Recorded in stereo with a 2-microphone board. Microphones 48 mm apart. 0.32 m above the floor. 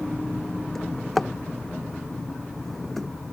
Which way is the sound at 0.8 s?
5° left (ahead or behind).